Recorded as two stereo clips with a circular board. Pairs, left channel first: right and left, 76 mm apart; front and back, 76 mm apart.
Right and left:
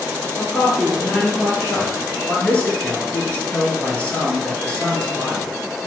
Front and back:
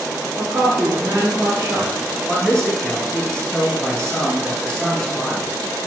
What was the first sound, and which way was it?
A woman speaking, 160° right.